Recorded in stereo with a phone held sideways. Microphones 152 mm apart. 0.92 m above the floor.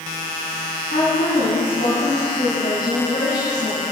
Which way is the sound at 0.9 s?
75° left (ahead or behind).